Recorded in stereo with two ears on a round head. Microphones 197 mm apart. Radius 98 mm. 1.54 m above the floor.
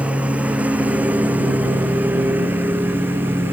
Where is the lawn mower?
5° right (ahead or behind); by 3.5 s 10° right (ahead or behind).